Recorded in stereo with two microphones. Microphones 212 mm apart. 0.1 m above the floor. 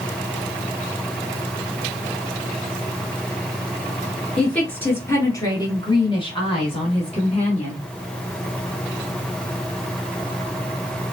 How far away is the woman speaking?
About 1.2 m.